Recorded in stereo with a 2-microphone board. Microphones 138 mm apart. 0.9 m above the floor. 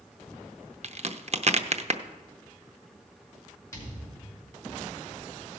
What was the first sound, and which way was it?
A crack, 50° right (ahead or behind).